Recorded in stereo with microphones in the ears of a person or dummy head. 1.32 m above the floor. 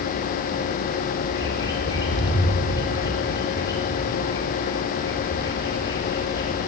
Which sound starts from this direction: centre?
A bird, at 1.3 s.